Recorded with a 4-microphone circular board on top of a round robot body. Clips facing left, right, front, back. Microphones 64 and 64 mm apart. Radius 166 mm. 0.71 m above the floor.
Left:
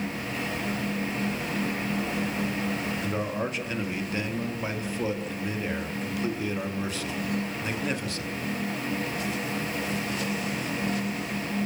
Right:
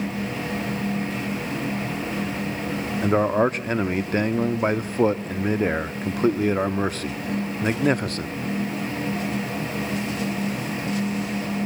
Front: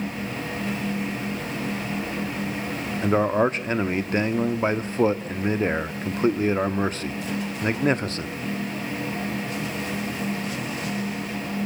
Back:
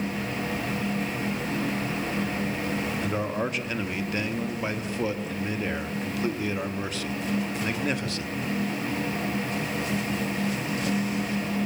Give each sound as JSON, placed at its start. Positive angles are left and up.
{"t": 3.0, "sound": "a man speaking", "azimuth_deg": -50, "distance_m": 1.6}